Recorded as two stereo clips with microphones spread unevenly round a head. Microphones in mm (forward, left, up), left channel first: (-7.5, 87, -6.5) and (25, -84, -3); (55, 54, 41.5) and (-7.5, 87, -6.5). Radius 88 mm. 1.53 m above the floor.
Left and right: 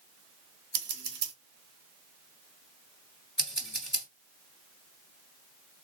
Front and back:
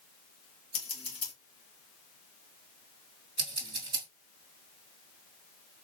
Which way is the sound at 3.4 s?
160° right.